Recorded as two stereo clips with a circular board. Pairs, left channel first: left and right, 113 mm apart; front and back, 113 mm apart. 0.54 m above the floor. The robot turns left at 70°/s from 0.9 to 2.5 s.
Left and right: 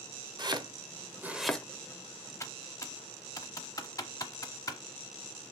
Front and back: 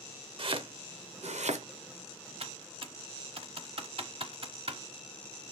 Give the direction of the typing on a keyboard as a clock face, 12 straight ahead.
7 o'clock.